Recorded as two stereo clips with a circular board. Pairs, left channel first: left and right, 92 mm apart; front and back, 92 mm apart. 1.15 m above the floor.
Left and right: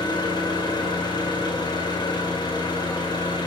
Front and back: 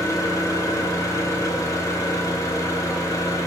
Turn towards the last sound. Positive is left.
turn(degrees=55)